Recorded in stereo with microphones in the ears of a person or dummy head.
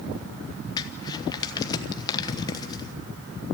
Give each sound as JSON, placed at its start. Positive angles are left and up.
{"t": 0.8, "sound": "crumpling", "side_deg": 25, "distance_m": 1.1}